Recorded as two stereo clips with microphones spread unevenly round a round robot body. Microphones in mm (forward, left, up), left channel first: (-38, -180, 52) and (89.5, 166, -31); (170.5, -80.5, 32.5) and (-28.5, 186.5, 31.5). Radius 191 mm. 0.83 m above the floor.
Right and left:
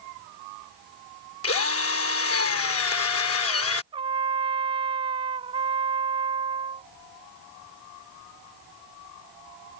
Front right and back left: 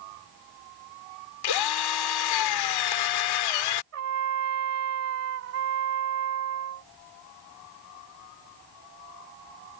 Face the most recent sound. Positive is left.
turn(degrees=155)